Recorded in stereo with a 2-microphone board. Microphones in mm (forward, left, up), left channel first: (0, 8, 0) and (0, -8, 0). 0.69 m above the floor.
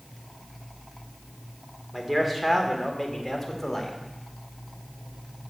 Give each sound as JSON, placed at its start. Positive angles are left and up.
{"t": 1.9, "sound": "a man speaking", "side_deg": -20, "distance_m": 1.8}